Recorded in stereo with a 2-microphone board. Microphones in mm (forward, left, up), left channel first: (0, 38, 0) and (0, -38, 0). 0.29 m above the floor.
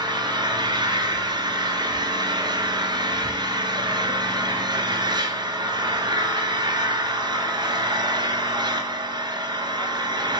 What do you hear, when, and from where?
0.0 s an engine running: 80° right, 1.7 m